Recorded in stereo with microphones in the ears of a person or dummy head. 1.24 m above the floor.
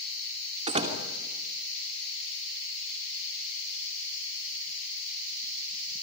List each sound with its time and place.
0.7 s a door slam: 35° right (ahead or behind), 2.5 m